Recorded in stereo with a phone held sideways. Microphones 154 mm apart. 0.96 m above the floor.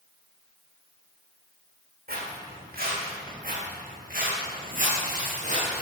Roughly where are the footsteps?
Right.